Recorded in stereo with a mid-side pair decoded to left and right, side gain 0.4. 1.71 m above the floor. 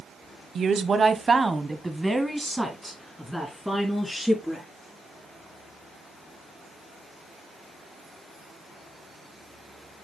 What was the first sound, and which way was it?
A woman speaking, 60° right.